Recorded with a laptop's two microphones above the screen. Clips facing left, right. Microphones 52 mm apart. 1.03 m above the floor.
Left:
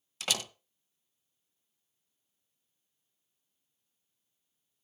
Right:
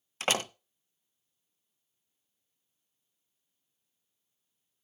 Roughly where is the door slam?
Right.